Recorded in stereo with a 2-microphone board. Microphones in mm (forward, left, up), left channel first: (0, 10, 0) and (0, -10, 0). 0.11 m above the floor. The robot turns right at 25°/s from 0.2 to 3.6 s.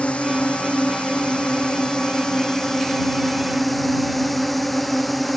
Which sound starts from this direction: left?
A drone, at 0.0 s.